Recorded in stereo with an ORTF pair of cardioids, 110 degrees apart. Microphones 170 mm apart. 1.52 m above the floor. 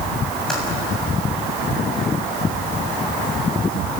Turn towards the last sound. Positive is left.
turn(degrees=5)